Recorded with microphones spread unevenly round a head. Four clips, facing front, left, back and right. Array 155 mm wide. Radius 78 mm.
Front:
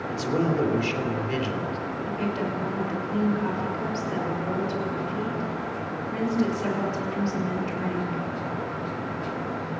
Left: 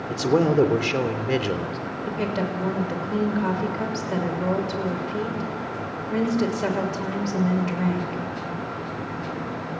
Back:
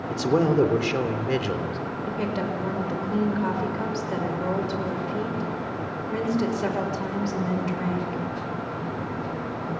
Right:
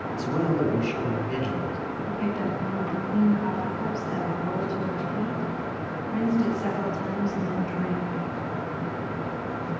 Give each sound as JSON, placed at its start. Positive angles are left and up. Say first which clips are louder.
{"t": 0.1, "sound": "a man speaking", "louder": "left 7 dB, back 4 dB", "azimuth_deg": 110, "distance_m": 3.0}
{"t": 2.1, "sound": "a woman speaking", "louder": "left 3 dB, back 1 dB", "azimuth_deg": 105, "distance_m": 6.0}